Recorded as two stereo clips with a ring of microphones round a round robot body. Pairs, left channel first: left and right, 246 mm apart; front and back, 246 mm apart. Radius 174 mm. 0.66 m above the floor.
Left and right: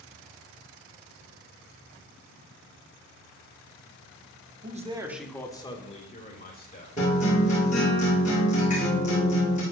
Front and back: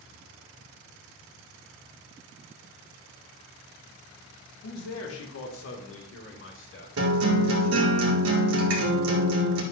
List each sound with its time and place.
4.6 s a man speaking: 40° right, 1.3 m; by 6.9 s 40° left, 3 m
7.0 s a guitar: 160° left, 2 m